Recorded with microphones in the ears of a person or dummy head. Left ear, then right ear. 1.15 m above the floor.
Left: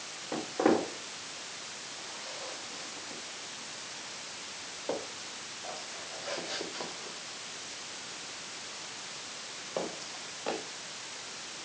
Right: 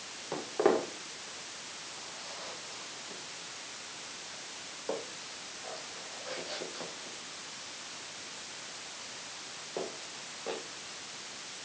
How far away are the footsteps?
About 5 m.